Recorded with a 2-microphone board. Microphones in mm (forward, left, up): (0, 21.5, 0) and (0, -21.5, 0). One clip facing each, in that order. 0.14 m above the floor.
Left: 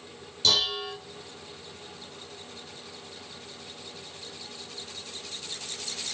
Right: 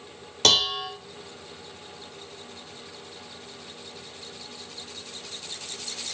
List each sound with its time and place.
0.4 s dishes clattering: 70° right (ahead or behind), 2.5 m